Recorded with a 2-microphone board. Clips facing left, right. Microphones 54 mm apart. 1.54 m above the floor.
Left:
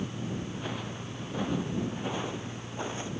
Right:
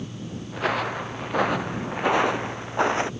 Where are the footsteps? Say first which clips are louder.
Right 11 dB; 75° right (ahead or behind); by 3.1 s 70° right (ahead or behind).